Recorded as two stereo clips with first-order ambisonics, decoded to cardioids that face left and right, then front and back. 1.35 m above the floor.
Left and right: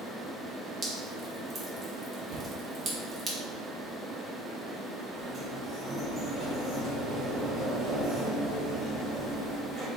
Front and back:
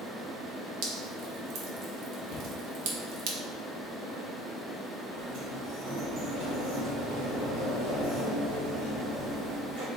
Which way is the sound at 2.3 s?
55° right.